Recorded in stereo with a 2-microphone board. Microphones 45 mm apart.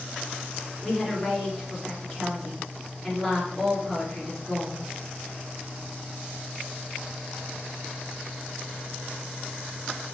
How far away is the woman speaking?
About 3.5 m.